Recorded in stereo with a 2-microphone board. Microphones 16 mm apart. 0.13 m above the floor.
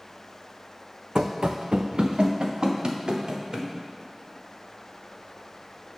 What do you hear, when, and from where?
1.1 s running footsteps: 70° right (ahead or behind), 0.7 m; by 3.7 s 55° right (ahead or behind), 2.5 m